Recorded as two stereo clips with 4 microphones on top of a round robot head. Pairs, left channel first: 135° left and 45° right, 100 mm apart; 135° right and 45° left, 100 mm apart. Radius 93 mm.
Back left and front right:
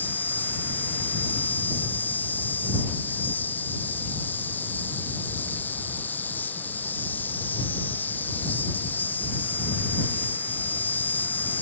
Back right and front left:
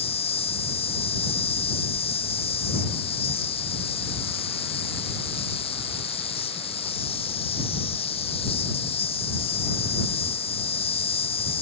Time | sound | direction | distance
0.0 | an insect | 155° right | ?